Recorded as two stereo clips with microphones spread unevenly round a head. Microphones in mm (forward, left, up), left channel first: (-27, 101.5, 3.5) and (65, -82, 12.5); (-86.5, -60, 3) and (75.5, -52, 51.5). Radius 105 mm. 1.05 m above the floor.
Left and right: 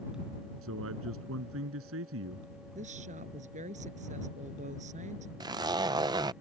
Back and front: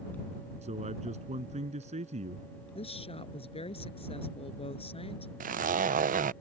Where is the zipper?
5° right.